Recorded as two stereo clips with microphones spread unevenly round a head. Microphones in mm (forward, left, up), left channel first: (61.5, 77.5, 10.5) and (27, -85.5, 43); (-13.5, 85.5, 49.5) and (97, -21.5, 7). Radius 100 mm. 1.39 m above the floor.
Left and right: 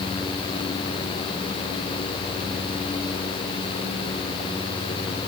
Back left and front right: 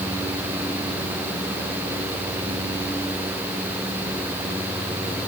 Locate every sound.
Only background noise.